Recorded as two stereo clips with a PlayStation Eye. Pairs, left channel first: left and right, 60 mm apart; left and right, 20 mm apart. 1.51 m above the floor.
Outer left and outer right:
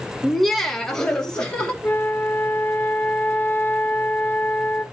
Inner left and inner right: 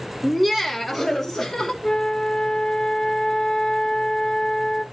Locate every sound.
0.2 s laughter: 5° right (ahead or behind), 1.0 m; by 1.7 s 15° left (ahead or behind), 3 m
1.8 s a flute: 35° left (ahead or behind), 1.3 m